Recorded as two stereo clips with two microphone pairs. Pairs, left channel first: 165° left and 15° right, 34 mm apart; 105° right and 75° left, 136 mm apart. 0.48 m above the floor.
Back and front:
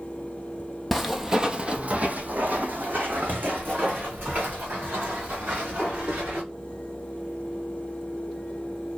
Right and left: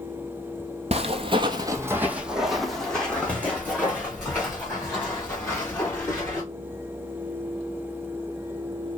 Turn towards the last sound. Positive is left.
turn(degrees=-40)